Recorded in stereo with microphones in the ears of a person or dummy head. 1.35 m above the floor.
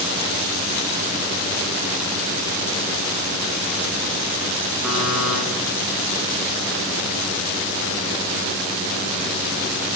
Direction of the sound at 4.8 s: 10° right (ahead or behind).